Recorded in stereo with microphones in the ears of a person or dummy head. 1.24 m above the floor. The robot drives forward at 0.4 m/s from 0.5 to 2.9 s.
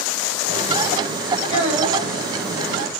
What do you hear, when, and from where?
1.5 s a child speaking: 30° right (ahead or behind), 3 m; by 2.1 s 35° right (ahead or behind), 3 m